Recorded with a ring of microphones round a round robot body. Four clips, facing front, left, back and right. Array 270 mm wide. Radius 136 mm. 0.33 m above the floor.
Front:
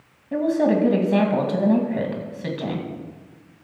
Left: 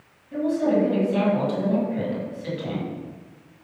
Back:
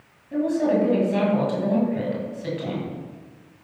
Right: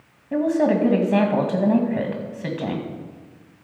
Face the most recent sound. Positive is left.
turn(degrees=-60)